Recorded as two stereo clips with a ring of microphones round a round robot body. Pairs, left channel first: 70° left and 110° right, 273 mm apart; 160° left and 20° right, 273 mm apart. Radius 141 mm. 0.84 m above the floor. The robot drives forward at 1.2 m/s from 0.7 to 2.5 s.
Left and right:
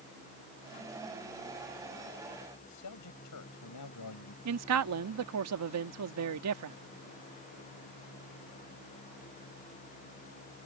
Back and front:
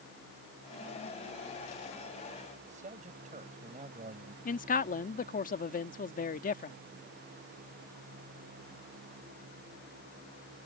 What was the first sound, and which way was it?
A man speaking, 40° left.